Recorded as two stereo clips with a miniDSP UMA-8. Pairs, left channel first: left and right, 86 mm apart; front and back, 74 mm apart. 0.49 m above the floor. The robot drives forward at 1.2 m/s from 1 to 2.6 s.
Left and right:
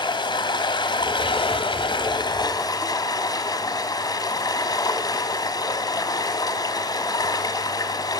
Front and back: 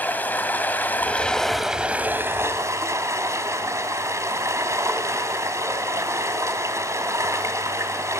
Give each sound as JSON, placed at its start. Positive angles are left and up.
{"t": 0.0, "sound": "running water", "azimuth_deg": 65, "distance_m": 1.6}